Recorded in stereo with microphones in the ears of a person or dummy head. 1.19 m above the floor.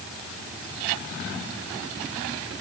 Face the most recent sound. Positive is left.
No sound to turn to.